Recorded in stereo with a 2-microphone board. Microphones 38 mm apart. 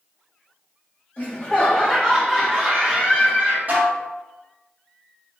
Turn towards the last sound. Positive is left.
turn(degrees=-45)  # may be behind; listen again after turning